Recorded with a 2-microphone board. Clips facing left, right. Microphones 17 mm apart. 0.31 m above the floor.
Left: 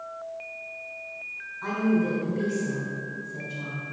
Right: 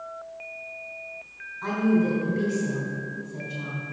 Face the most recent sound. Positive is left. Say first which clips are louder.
# right 2 dB
turn(degrees=-10)  # may be behind; listen again after turning